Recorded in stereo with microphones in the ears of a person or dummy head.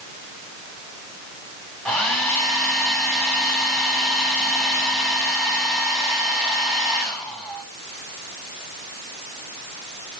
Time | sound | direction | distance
1.9 | a hair dryer | 5° left (ahead or behind) | 4 m